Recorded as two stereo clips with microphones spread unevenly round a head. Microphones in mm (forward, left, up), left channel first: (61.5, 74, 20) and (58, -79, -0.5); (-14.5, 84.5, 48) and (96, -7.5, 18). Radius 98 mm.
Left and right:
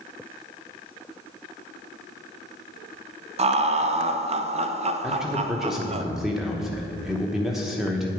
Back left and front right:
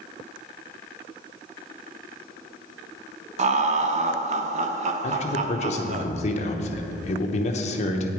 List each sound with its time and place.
3.4 s laughter: 55° right, 0.9 m
5.0 s a man speaking: 175° right, 0.9 m